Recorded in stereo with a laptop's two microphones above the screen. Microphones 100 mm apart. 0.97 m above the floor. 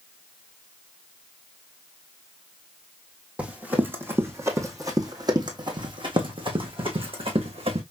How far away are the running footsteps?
About 1.9 m.